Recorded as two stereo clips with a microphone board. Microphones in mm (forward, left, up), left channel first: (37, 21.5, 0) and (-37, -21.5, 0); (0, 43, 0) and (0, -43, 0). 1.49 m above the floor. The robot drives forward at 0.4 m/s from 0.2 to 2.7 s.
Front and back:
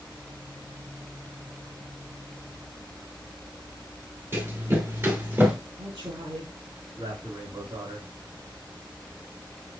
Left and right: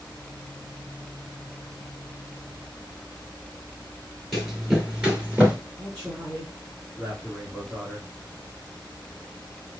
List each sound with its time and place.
4.3 s running footsteps: straight behind, 1.7 m; by 5.6 s 140° right, 1.6 m
5.8 s a man speaking: 170° right, 3 m